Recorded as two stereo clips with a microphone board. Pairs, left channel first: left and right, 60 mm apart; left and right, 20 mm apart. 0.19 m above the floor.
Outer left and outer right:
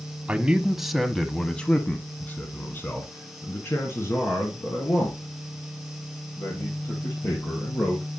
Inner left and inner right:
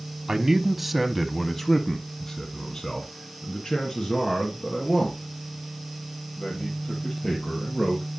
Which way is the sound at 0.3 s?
20° right (ahead or behind).